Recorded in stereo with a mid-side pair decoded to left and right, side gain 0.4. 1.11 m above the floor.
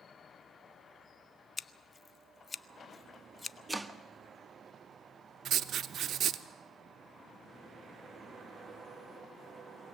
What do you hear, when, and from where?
1.6 s scissors: 35° left, 0.6 m
3.7 s chopping: 10° right, 1.0 m
5.5 s writing: 65° right, 0.8 m